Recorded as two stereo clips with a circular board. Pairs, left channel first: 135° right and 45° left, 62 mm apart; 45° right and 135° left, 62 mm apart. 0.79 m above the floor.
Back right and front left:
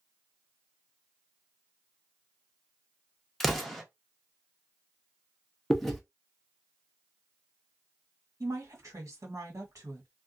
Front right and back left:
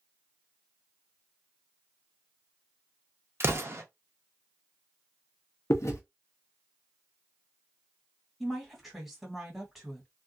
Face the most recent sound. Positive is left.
turn(degrees=50)